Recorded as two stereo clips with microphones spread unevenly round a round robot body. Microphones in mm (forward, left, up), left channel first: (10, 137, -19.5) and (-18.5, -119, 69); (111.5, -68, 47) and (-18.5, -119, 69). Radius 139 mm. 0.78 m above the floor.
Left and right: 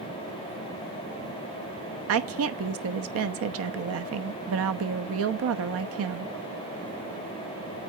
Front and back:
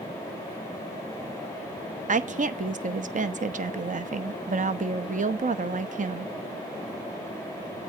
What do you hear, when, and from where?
2.1 s a woman speaking: 140° right, 0.9 m